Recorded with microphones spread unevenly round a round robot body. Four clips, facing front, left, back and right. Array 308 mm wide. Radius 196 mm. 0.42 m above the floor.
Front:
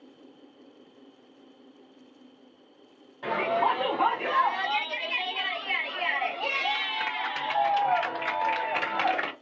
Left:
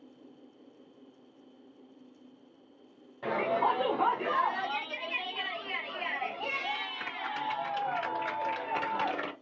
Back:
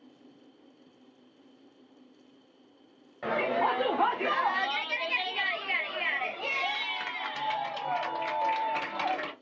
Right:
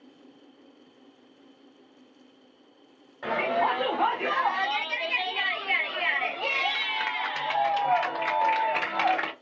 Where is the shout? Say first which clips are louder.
Right 3 dB, front 2 dB; 160° left, 1.6 m; by 9.3 s 65° right, 3 m.